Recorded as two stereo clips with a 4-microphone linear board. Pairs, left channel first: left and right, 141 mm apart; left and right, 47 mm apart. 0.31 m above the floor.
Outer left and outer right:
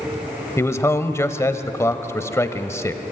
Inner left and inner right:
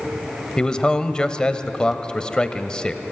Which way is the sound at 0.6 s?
20° left (ahead or behind).